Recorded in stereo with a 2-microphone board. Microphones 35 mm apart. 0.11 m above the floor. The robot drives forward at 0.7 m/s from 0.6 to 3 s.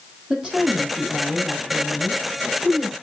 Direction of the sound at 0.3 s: 15° right (ahead or behind).